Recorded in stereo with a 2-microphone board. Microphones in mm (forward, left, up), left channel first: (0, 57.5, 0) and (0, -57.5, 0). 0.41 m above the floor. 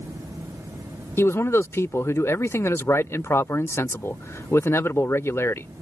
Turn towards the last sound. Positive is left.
turn(degrees=20)  # may be behind; listen again after turning